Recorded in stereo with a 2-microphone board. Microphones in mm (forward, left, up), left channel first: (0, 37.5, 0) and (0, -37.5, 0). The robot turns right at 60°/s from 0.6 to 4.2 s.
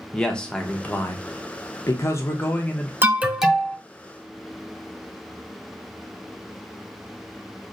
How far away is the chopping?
No chopping in this recording.